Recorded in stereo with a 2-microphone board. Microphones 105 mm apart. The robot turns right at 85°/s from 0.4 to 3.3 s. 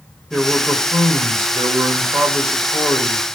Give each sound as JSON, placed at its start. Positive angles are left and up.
{"t": 0.3, "sound": "a man speaking", "azimuth_deg": 180, "distance_m": 1.5}